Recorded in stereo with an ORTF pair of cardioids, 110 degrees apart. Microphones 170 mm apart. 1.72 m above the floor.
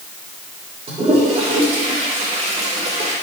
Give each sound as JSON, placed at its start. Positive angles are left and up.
{"t": 0.9, "sound": "a toilet flushing", "azimuth_deg": -40, "distance_m": 3.0}